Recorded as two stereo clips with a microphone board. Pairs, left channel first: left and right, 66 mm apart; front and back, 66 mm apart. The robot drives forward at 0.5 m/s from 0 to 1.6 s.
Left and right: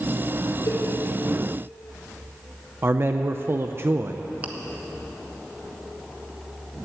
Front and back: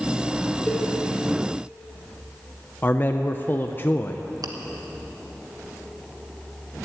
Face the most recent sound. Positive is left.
turn(degrees=-155)